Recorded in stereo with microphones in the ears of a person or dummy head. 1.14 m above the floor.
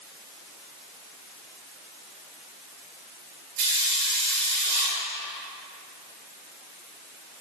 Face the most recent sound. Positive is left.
turn(degrees=-50)  # may be behind; listen again after turning